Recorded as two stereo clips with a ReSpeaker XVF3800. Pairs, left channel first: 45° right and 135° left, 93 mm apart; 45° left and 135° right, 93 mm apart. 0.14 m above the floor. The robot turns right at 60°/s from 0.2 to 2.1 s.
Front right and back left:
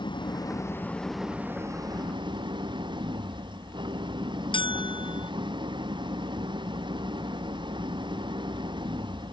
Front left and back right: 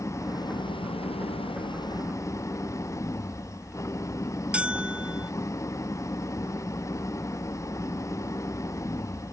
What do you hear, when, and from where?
0.0 s an engine running: 15° right; by 9.3 s 100° left
4.5 s a bell: 60° right